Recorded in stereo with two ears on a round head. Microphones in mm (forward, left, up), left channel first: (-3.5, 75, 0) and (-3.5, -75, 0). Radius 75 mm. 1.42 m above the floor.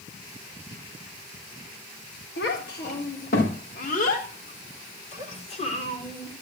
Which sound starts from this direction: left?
A child speaking, at 2.4 s.